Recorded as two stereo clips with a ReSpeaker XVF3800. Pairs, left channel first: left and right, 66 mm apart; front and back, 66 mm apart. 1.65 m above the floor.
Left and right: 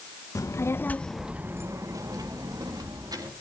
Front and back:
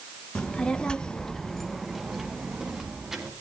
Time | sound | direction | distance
0.3 | a child speaking | 75° left | 1.2 m